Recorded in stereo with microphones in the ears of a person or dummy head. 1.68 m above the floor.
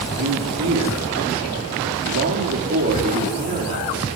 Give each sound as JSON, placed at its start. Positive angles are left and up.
{"t": 0.1, "sound": "a man speaking", "side_deg": -85, "distance_m": 5.0}